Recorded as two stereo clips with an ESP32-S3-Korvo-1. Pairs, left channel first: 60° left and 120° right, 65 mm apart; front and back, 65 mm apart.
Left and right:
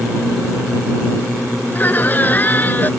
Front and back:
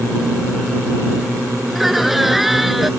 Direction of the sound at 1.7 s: 95° left.